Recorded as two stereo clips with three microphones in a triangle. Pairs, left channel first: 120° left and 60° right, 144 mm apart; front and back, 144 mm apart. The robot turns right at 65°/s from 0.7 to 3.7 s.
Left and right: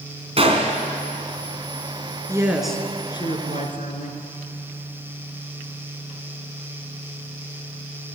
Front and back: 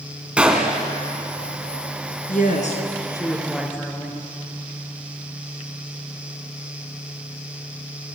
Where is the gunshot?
100° right, 3 m; by 0.8 s 95° right, 3 m.